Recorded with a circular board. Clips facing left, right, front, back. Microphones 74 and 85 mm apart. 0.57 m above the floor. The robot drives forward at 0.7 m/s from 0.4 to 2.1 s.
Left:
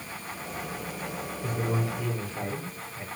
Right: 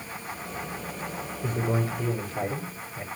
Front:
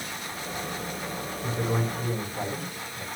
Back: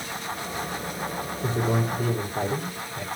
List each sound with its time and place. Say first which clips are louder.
1.4 s a man speaking: right 2 dB, back 3 dB; 150° right, 8 m